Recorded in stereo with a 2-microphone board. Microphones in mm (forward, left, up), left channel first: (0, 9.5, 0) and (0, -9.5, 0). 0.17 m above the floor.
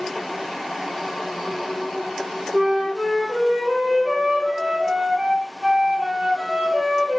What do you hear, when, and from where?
2.5 s a flute: 60° right (ahead or behind), 4.5 m